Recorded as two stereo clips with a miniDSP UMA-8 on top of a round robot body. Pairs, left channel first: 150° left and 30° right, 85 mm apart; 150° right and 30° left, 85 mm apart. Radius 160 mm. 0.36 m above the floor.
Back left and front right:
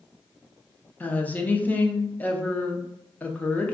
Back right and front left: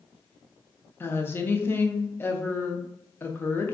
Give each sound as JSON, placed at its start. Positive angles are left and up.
{"t": 1.0, "sound": "a woman speaking", "azimuth_deg": -165, "distance_m": 0.8}